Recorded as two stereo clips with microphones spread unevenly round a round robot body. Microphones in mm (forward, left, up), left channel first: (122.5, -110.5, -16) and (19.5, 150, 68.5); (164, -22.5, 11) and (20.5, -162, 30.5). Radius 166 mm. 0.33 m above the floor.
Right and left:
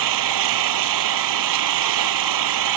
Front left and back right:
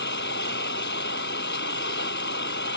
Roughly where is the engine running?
Left.